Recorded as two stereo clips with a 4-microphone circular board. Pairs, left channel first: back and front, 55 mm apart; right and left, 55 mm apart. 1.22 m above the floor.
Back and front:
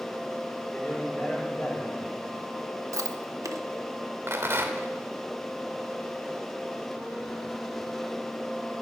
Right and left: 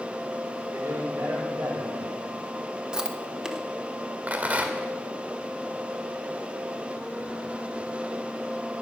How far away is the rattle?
About 1.5 m.